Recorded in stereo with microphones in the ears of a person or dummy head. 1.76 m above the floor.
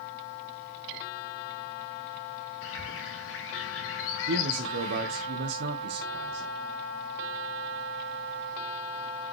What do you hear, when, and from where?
2.6 s a bird: 75° left (ahead or behind), 2.5 m
4.3 s a man speaking: 60° right (ahead or behind), 1.4 m